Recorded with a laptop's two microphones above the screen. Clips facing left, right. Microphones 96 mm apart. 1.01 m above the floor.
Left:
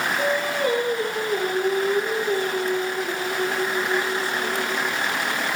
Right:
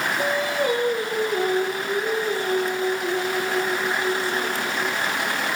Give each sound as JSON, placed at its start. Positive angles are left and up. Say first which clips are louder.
{"t": 0.2, "sound": "singing", "louder": "even", "side_deg": -5, "distance_m": 5.5}